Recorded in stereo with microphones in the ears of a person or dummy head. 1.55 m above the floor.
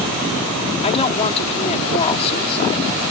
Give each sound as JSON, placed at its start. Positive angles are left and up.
{"t": 0.8, "sound": "a woman speaking", "side_deg": 30}